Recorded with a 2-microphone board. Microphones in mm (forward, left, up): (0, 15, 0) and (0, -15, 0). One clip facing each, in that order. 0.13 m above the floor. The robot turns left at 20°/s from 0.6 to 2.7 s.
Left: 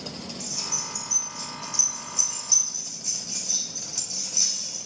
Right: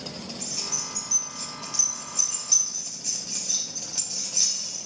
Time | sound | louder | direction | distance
0.4 | keys jangling | left 1 dB | 50° right (ahead or behind) | 1.7 m